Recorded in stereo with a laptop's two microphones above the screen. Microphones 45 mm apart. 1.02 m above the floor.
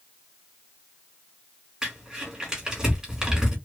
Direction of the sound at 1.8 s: 15° right (ahead or behind).